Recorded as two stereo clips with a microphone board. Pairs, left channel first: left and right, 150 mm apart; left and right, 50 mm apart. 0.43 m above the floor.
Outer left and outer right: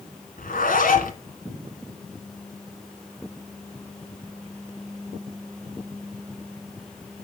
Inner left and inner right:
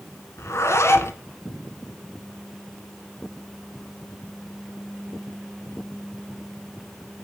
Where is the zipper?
65° left (ahead or behind), 1.6 m.